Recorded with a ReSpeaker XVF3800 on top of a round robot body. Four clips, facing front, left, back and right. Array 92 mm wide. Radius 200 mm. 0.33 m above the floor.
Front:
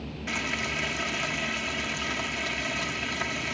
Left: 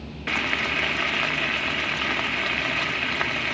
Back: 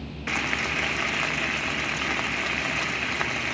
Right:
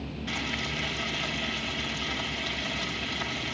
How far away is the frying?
About 1.1 m.